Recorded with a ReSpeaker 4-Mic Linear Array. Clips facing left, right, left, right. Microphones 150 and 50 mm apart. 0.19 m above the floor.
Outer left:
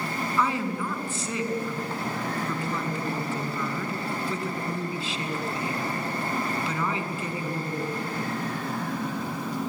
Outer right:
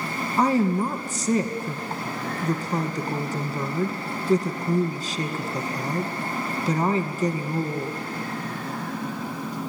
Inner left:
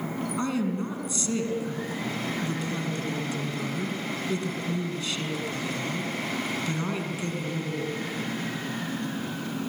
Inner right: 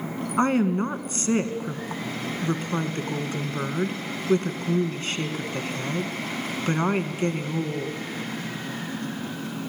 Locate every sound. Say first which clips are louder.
0.4 s a woman speaking: outer right 8 dB, inner right 8 dB; 45° right (ahead or behind), 2 m